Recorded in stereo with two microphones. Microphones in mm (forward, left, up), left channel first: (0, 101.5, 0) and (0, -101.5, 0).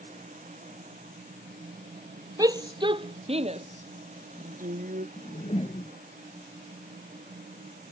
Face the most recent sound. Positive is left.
turn(degrees=35)  # may be behind; listen again after turning